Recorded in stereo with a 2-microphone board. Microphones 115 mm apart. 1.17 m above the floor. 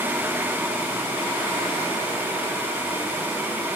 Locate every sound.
Only background noise.